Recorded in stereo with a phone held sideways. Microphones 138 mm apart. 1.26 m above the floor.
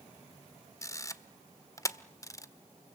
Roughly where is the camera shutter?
Left.